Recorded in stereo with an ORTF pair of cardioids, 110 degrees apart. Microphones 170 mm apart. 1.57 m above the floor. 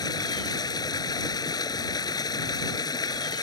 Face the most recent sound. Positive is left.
turn(degrees=25)